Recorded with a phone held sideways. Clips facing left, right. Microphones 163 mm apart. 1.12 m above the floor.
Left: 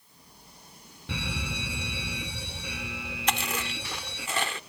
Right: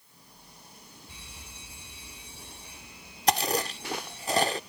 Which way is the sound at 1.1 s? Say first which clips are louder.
Left 16 dB; 75° left (ahead or behind).